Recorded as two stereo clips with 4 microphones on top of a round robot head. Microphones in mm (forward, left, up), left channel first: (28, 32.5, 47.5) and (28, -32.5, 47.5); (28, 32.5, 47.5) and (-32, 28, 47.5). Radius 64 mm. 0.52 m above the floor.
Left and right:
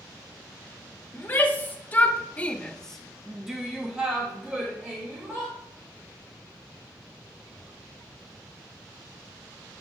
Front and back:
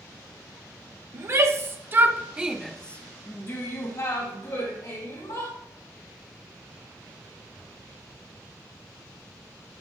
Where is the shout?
150° left, 1.5 m; by 5.5 s 20° right, 2.5 m.